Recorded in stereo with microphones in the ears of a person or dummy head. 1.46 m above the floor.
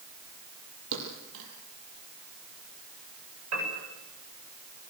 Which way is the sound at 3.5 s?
90° right.